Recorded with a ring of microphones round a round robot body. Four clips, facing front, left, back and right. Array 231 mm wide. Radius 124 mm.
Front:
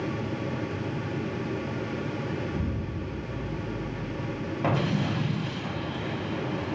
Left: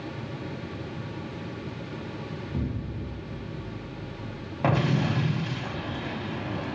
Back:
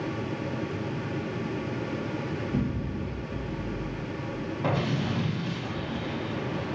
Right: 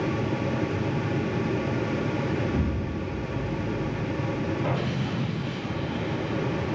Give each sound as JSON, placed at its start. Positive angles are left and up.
{"t": 2.5, "sound": "an explosion", "azimuth_deg": -125, "distance_m": 0.9}
{"t": 4.6, "sound": "an explosion", "azimuth_deg": 75, "distance_m": 0.9}